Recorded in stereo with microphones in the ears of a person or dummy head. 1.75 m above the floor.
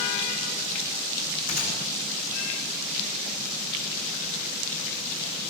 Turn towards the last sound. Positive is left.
turn(degrees=45)  # may be behind; listen again after turning